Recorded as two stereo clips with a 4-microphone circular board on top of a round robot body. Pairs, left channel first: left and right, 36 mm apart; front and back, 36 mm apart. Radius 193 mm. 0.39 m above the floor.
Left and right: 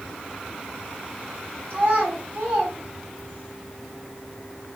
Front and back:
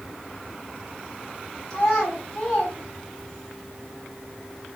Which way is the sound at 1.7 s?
70° right.